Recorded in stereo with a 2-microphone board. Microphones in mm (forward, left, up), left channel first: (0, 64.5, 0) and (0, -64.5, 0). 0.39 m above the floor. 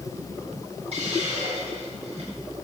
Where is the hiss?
50° right (ahead or behind), 7 m.